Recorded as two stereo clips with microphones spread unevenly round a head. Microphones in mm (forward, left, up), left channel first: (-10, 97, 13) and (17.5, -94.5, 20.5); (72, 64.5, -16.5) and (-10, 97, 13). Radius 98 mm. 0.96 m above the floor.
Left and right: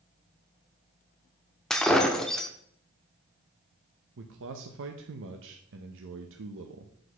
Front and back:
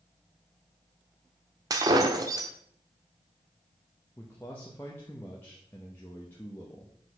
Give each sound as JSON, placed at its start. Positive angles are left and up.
{"t": 1.7, "sound": "breaking glass", "azimuth_deg": -175, "distance_m": 0.8}
{"t": 4.2, "sound": "a man speaking", "azimuth_deg": -90, "distance_m": 0.8}